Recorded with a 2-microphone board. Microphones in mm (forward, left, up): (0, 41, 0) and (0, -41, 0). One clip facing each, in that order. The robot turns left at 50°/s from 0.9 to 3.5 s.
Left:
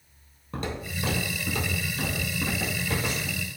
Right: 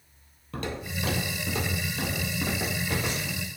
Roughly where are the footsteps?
Centre.